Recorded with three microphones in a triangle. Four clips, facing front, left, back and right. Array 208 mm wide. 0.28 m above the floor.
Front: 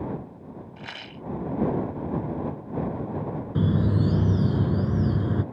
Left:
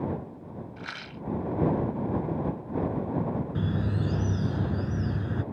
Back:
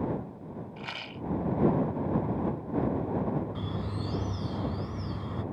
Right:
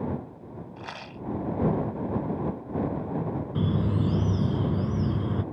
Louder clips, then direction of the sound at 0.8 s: Right 1 dB, even; 90° right.